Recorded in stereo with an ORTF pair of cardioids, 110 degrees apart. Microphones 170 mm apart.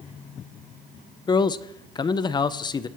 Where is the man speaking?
25° left, 0.5 m.